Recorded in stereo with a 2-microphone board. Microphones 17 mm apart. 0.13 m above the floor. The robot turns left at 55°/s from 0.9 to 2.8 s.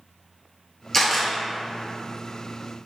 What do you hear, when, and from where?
0.9 s a camera shutter: 15° left (ahead or behind), 0.9 m; by 1.3 s 30° left (ahead or behind), 0.9 m